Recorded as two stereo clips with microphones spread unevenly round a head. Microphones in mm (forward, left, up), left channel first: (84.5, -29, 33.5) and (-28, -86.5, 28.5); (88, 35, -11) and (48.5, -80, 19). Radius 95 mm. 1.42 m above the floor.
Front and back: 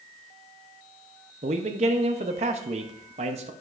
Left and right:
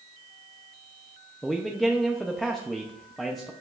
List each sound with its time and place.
1.4 s a man speaking: 160° left, 0.6 m